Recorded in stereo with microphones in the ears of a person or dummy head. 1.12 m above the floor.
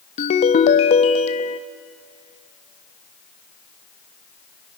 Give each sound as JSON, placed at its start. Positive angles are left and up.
{"t": 0.2, "sound": "a ringtone", "side_deg": 40, "distance_m": 0.6}